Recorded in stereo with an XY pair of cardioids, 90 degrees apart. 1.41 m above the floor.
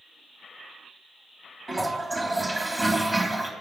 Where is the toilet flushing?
15° right, 2.5 m.